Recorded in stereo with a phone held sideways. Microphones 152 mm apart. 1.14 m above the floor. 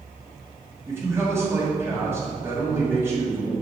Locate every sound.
0.9 s a man speaking: 15° right (ahead or behind), 2.0 m